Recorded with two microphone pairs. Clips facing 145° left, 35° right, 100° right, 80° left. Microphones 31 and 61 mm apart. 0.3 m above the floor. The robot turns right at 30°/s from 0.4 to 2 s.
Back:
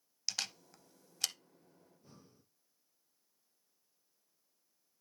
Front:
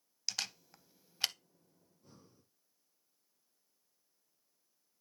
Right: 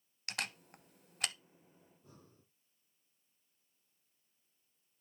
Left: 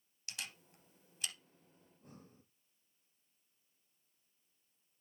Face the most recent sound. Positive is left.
turn(degrees=70)